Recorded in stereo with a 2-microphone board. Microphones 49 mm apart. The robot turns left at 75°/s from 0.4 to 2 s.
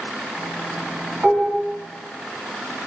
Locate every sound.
1.2 s dishes clattering: 30° right (ahead or behind), 1.3 m; by 1.6 s 5° right (ahead or behind), 1.3 m